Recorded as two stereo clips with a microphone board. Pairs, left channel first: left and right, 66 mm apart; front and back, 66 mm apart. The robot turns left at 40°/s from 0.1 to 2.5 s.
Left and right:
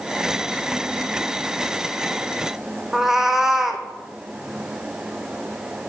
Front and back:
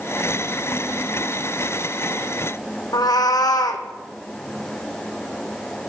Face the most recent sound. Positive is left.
turn(degrees=-5)